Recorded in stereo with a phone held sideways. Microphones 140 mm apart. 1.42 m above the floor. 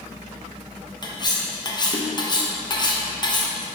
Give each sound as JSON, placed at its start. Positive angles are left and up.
{"t": 1.0, "sound": "cutlery clinking", "side_deg": 30, "distance_m": 0.7}